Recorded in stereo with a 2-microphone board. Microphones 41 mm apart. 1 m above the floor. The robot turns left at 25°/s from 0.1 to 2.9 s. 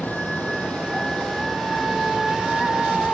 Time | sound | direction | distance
0.0 | running water | 50° left | 5.5 m